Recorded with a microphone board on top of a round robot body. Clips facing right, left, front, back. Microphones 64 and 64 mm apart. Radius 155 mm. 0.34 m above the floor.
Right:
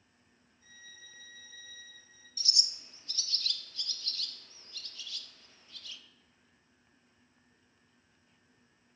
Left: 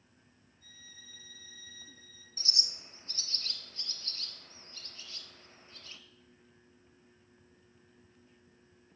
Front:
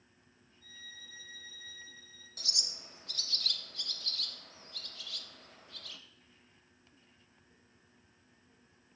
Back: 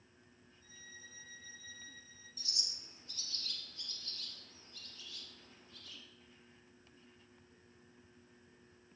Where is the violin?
25° right, 4 m.